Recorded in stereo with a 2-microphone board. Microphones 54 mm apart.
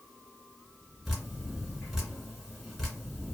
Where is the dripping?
Centre (ahead or behind), 1.7 m.